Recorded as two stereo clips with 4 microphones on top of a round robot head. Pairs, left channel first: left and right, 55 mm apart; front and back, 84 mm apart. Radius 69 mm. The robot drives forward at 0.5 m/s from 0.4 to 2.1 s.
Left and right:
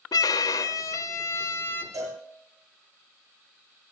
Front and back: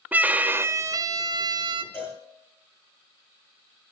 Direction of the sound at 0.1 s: 110° left.